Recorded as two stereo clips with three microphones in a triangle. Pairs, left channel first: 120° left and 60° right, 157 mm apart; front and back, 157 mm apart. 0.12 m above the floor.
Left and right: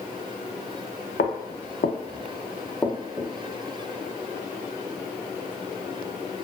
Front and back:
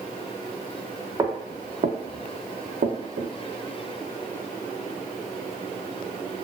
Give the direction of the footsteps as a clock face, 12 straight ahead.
8 o'clock.